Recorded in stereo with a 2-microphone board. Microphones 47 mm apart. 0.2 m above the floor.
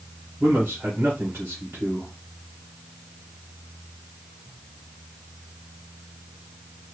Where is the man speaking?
50° right (ahead or behind), 2.5 m.